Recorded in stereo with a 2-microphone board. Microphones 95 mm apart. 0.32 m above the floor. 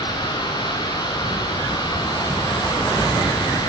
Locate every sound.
0.0 s running water: 45° left (ahead or behind), 7.5 m